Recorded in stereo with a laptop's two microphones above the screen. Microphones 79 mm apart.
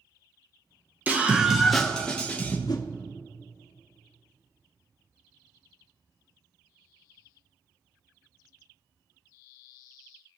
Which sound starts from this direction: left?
A whoosh, at 2.7 s.